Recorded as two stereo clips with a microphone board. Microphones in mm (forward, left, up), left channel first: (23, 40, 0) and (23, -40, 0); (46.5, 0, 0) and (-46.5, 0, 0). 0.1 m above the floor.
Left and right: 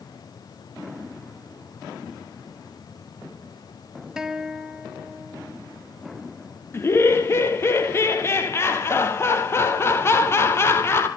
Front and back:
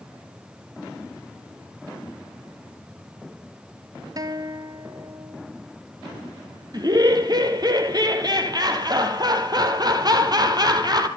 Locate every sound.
4.2 s a guitar: 170° right, 1.5 m
6.7 s laughter: 145° left, 3 m